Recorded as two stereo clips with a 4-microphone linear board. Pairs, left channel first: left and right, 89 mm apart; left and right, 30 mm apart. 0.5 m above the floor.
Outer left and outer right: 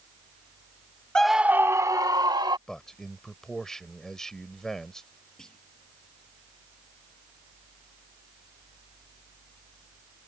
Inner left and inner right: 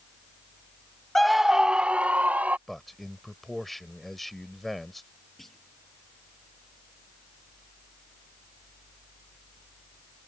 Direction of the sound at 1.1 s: 10° left (ahead or behind).